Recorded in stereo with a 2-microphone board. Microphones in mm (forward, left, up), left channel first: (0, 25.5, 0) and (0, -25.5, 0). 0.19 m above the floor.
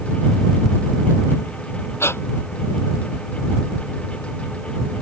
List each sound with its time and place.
2.0 s breathing: 55° left (ahead or behind)